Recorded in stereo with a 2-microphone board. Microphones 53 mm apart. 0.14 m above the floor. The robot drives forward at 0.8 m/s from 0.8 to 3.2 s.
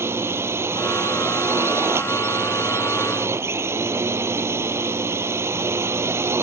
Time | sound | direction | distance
0.0 | a drone | 50° right (ahead or behind) | ?